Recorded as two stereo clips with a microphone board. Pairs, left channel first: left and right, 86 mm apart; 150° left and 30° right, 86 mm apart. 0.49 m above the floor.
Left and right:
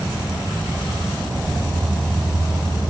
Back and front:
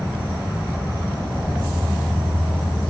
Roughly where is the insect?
Behind right.